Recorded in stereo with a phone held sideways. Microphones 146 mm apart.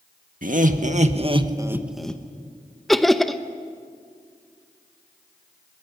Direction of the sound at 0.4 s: 65° right (ahead or behind).